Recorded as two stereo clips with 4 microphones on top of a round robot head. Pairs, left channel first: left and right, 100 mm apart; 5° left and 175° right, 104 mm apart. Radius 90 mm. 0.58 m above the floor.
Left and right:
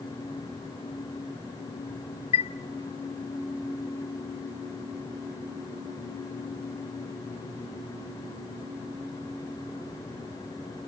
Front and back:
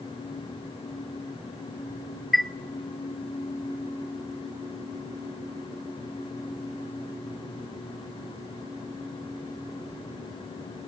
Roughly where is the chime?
Left.